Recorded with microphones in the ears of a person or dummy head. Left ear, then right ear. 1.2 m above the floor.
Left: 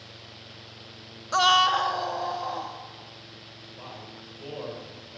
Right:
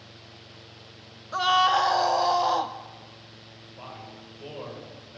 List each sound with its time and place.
1.3 s a scream: 30° left (ahead or behind), 0.5 m; by 2.8 s 45° right (ahead or behind), 0.9 m
3.8 s a man speaking: 5° right (ahead or behind), 6 m